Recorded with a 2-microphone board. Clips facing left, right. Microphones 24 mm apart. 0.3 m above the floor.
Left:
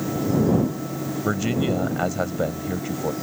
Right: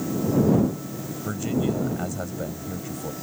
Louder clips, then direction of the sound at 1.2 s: Left 2 dB; 35° left (ahead or behind).